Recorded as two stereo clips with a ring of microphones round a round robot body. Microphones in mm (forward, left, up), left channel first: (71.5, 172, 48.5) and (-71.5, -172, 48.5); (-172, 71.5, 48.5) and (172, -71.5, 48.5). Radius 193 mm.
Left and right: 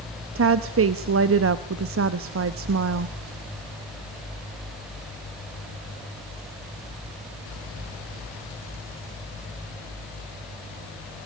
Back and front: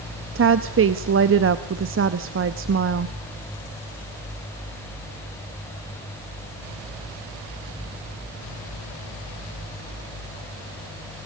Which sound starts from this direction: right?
A woman speaking, at 0.3 s.